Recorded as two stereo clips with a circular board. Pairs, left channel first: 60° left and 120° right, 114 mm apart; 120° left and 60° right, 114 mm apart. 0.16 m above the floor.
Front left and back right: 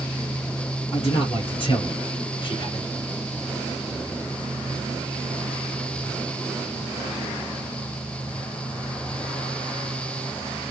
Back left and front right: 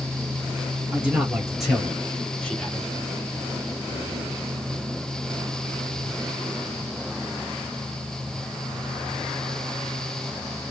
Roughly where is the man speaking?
Ahead left.